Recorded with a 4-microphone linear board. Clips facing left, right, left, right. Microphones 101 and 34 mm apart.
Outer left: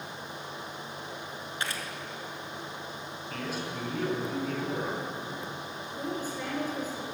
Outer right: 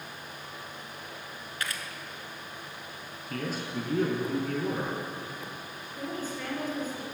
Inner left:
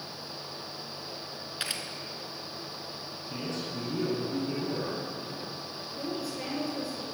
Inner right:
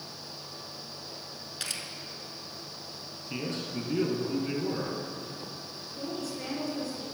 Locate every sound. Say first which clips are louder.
1.6 s a camera shutter: outer left 1 dB, inner left 2 dB; 25° left (ahead or behind), 1.0 m
3.3 s a man speaking: outer right 3 dB, inner right 2 dB; 50° right (ahead or behind), 3 m
6.0 s a woman speaking: outer left 1 dB, inner left 1 dB; 15° left (ahead or behind), 2.0 m